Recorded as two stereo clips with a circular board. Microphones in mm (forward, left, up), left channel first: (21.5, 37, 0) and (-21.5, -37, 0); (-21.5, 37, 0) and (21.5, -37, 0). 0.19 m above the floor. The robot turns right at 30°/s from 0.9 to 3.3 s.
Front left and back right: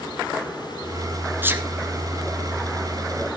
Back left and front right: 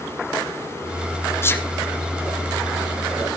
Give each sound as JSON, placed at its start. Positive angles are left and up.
{"t": 1.4, "sound": "a sneeze", "azimuth_deg": 175, "distance_m": 2.0}